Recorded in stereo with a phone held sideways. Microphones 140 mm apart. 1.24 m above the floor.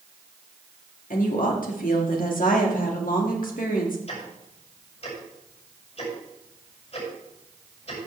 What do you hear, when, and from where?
1.1 s a woman speaking: 75° left (ahead or behind), 2 m
4.1 s ticking: 50° left (ahead or behind), 6 m